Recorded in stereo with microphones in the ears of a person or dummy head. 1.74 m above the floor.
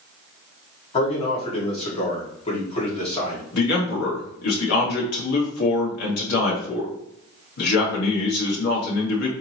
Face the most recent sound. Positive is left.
turn(degrees=70)  # may be behind; listen again after turning